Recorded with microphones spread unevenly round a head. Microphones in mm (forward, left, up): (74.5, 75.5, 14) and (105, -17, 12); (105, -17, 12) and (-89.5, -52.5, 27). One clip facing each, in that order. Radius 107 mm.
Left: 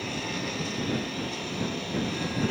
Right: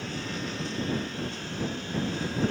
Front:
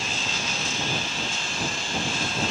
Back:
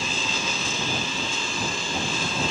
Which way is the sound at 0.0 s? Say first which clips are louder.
Left 2 dB, back 2 dB; 165° left.